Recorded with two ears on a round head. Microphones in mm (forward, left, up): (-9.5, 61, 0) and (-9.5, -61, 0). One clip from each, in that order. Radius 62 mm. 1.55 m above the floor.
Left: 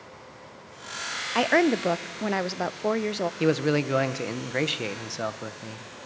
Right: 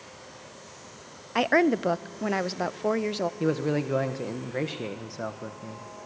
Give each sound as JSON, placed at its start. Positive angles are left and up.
{"t": 1.4, "sound": "a woman speaking", "side_deg": 5, "distance_m": 0.6}
{"t": 3.4, "sound": "a man speaking", "side_deg": 65, "distance_m": 1.3}